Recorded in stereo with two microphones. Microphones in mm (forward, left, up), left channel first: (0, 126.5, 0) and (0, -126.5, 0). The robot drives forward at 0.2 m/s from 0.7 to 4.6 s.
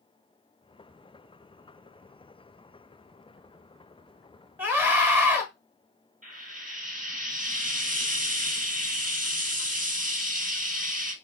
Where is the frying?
35° right (ahead or behind), 1.7 m.